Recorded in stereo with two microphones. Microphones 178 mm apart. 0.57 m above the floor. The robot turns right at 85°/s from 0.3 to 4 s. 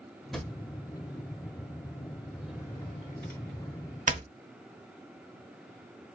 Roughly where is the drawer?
Centre.